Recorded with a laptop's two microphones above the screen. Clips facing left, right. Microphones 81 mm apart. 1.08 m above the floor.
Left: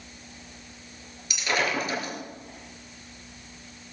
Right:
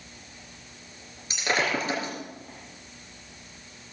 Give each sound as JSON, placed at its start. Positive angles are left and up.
{"t": 1.3, "sound": "breaking glass", "side_deg": -30, "distance_m": 4.0}